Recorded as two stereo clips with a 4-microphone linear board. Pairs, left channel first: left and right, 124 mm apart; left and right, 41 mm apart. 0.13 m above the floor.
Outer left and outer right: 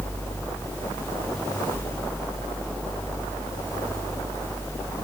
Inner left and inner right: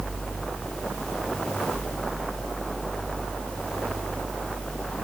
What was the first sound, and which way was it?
Only background noise.